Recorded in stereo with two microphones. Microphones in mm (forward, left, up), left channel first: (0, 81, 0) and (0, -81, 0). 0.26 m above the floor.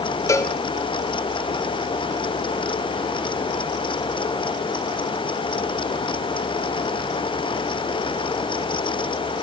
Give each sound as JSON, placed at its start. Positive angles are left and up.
{"t": 0.3, "sound": "a cowbell", "side_deg": 20, "distance_m": 1.0}